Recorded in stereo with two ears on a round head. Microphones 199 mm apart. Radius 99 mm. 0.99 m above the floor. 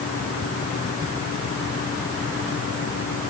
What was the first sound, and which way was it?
Only background noise.